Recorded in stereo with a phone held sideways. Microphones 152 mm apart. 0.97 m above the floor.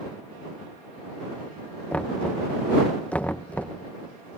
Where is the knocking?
10° left (ahead or behind).